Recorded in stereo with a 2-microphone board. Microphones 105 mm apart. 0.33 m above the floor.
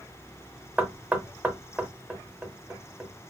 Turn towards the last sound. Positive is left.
turn(degrees=-15)  # may be behind; listen again after turning